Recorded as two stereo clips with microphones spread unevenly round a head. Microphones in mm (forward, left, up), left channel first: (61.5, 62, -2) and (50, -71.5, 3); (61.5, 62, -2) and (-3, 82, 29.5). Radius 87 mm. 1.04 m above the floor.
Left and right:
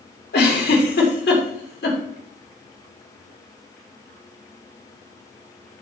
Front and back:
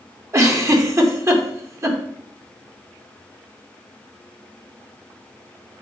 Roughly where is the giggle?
Behind left.